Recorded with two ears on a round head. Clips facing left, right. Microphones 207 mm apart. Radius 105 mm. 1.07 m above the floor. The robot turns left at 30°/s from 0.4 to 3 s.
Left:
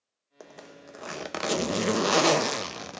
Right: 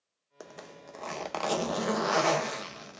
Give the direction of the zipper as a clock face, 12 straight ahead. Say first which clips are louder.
Even; 6 o'clock.